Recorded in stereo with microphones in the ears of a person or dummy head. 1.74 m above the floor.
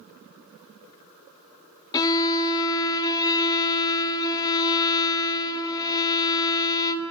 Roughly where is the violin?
Left.